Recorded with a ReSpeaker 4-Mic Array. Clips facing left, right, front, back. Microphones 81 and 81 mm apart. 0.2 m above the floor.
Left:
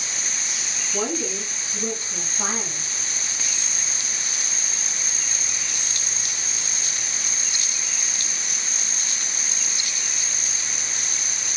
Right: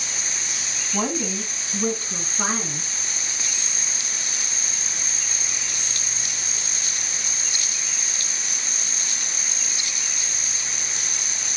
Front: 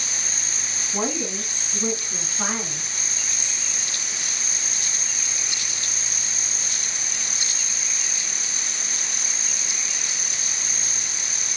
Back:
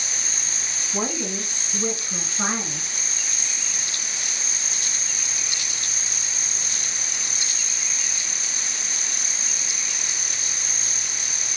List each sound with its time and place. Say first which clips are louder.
0.9 s a woman speaking: right 1 dB, front 1 dB; 100° right, 1.3 m; by 2.9 s 120° right, 2.5 m